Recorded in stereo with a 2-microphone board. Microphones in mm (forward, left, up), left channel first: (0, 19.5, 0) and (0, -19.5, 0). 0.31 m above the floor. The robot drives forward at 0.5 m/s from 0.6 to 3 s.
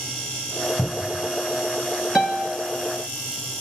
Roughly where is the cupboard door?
Left.